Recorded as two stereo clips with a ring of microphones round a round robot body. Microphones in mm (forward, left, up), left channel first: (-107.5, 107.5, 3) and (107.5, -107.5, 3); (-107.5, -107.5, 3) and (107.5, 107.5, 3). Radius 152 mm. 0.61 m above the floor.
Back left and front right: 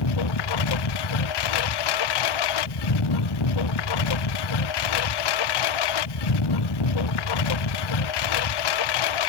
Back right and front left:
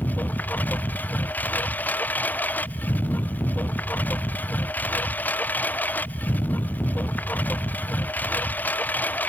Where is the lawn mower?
140° left.